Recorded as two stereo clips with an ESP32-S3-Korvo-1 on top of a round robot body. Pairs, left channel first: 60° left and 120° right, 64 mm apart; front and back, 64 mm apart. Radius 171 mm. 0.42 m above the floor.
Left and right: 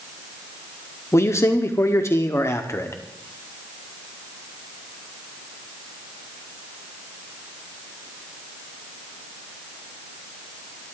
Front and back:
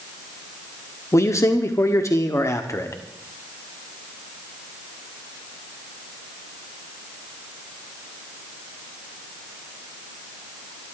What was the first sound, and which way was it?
A man speaking, 25° left.